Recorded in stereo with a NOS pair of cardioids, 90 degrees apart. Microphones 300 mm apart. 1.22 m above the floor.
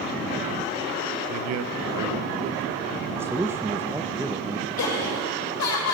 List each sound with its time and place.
1.3 s a man speaking: 65° right, 0.7 m; by 3.1 s 60° right, 1.6 m
3.2 s a man speaking: 10° right, 0.7 m
4.8 s laughter: 65° left, 6 m